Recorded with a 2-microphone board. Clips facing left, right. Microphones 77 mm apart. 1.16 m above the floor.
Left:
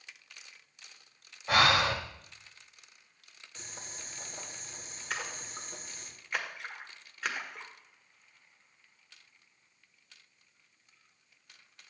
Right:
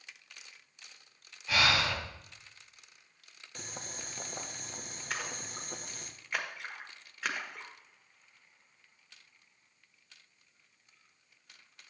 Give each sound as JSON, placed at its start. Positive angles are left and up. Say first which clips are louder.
{"t": 1.5, "sound": "breathing", "louder": "left 4 dB", "side_deg": 45, "distance_m": 1.1}
{"t": 3.5, "sound": "boiling", "louder": "right 4 dB", "side_deg": -60, "distance_m": 1.0}
{"t": 5.1, "sound": "a splash", "louder": "left 1 dB", "side_deg": 0, "distance_m": 1.2}